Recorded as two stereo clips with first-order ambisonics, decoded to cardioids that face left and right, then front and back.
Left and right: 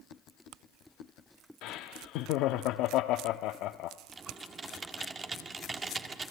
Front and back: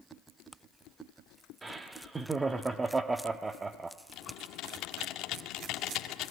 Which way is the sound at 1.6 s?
105° left.